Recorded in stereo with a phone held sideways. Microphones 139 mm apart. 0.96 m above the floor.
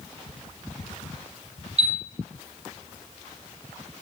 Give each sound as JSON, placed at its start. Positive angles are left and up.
{"t": 1.8, "sound": "a chime", "side_deg": -40, "distance_m": 1.4}